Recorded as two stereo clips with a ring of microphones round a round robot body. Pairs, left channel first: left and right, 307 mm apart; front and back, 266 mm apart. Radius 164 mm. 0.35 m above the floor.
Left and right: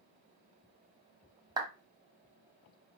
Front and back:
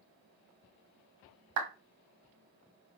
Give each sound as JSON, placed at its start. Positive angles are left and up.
{"t": 1.6, "sound": "a clap", "azimuth_deg": -165, "distance_m": 1.8}